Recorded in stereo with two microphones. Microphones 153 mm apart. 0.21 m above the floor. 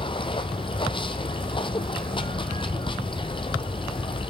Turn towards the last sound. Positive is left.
turn(degrees=35)  # may be behind; listen again after turning